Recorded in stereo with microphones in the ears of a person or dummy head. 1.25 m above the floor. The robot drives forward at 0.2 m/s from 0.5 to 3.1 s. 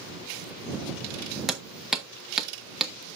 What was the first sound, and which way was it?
Hammering, centre (ahead or behind).